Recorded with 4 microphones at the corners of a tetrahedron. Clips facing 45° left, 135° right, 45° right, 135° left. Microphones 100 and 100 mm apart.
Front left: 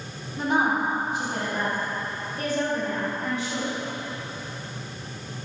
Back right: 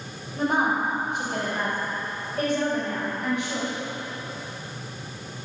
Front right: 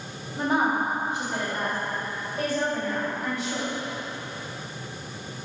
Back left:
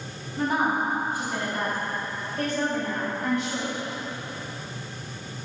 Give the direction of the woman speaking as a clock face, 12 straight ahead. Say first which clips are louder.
Even, front right 1 dB; 3 o'clock.